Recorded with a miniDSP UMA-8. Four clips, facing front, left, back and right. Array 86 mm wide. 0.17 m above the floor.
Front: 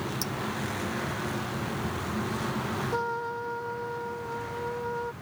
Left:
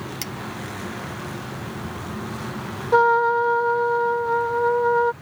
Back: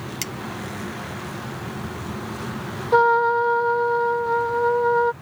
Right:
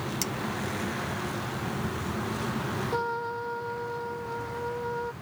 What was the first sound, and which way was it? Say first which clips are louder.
Cutlery clinking: even, back 1 dB; 165° left.